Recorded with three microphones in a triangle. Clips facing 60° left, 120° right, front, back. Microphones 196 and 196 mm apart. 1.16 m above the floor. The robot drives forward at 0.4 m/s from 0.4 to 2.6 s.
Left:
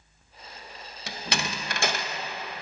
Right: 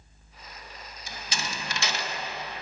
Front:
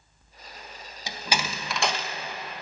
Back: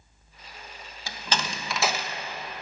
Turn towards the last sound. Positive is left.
turn(degrees=115)